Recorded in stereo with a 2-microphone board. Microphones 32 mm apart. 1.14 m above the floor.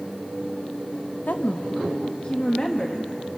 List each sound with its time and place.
1.3 s a woman speaking: 65° left (ahead or behind), 0.9 m; by 3.1 s 20° left (ahead or behind), 1.6 m